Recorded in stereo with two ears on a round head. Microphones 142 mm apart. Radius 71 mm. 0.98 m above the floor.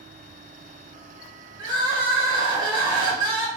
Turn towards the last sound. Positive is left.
turn(degrees=-30)  # may be behind; listen again after turning